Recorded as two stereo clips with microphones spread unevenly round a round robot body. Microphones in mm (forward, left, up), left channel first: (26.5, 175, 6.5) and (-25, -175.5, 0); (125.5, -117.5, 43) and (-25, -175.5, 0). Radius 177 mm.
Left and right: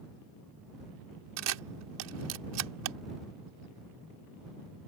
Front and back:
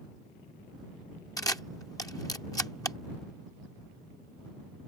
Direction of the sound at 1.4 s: 50° right.